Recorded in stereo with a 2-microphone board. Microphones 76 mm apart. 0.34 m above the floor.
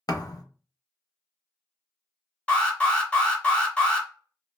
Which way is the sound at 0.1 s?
55° left (ahead or behind).